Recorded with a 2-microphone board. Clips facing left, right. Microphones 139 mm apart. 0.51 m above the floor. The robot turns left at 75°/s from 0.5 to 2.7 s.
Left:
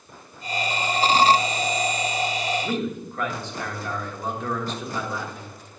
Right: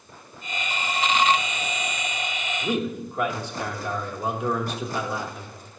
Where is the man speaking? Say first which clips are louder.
Right 1 dB; 15° right (ahead or behind), 1.3 m; by 5.5 s 10° right (ahead or behind), 1.3 m.